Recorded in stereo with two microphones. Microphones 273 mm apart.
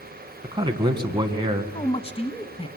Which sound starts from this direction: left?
A man speaking, at 1.7 s.